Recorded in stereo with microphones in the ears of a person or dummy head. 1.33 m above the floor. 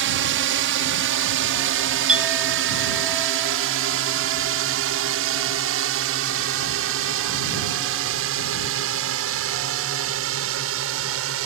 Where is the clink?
5° right (ahead or behind).